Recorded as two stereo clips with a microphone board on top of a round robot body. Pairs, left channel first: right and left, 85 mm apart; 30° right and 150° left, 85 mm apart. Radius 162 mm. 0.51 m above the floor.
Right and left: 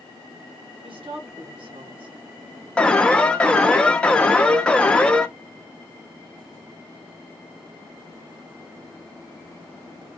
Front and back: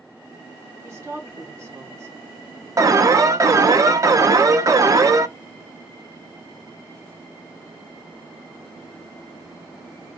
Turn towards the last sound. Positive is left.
turn(degrees=-165)